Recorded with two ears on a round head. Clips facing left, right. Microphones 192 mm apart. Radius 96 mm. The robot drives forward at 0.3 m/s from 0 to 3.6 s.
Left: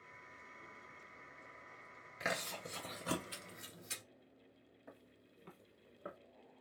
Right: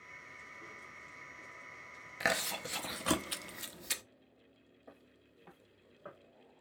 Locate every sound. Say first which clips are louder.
2.2 s chewing: right 5 dB; 65° right (ahead or behind), 0.8 m; by 4.0 s 80° right, 0.8 m
4.9 s footsteps: right 1 dB; 5° left (ahead or behind), 0.9 m; by 6.2 s 25° left (ahead or behind), 1.6 m